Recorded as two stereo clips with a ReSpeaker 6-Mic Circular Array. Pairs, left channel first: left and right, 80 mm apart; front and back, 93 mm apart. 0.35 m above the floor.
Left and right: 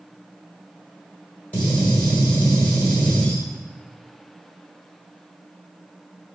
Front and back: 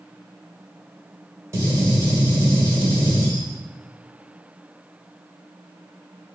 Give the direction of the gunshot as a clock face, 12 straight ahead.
7 o'clock.